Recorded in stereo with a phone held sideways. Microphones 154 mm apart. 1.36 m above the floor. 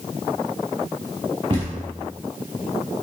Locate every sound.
1.5 s a thud: 35° right (ahead or behind), 4 m